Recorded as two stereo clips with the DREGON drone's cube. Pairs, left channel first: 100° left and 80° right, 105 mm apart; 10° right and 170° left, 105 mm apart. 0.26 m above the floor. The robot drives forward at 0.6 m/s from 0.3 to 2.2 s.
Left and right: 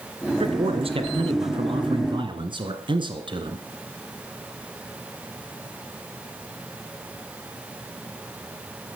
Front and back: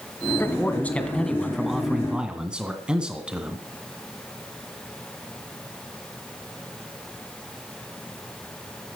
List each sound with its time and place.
0.4 s a man speaking: 80° right, 2 m; by 3.6 s 110° right, 2 m